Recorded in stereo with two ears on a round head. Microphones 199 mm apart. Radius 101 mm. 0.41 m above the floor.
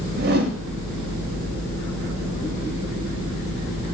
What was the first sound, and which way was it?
A whoosh, 45° right (ahead or behind).